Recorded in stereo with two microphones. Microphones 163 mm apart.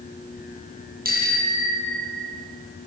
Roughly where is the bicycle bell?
Right.